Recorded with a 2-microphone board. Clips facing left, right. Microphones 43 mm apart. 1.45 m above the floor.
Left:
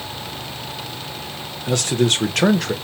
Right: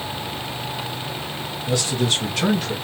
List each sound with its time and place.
1.7 s a man speaking: 65° left (ahead or behind), 1.3 m; by 2.7 s 85° left, 1.0 m